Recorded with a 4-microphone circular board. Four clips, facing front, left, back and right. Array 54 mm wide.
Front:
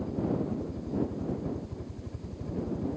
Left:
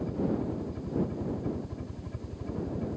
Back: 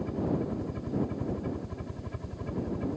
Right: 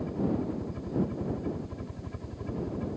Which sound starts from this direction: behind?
A helicopter, at 0.0 s.